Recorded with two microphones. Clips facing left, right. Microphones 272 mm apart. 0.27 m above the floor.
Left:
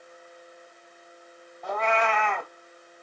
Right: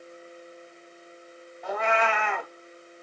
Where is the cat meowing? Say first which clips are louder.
Even; 10° right (ahead or behind), 0.7 m.